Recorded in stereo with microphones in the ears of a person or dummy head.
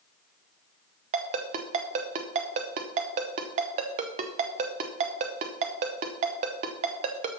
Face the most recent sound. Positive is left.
turn(degrees=-35)  # may be behind; listen again after turning